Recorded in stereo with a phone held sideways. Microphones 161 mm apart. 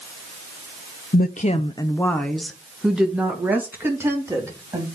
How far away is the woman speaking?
About 0.6 m.